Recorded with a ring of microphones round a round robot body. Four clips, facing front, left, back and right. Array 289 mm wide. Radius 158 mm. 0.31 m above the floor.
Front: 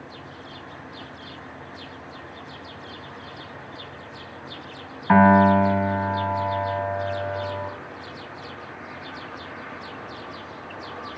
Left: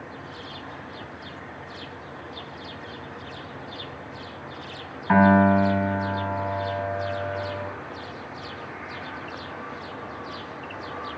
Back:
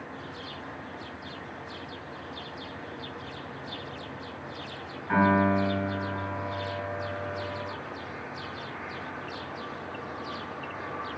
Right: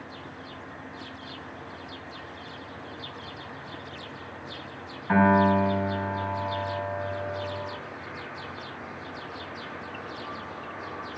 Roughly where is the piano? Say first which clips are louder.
Left 3 dB, front 8 dB; ahead.